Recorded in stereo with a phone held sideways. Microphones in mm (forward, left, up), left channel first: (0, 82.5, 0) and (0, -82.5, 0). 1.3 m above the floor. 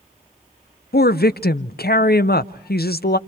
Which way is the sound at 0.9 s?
80° left.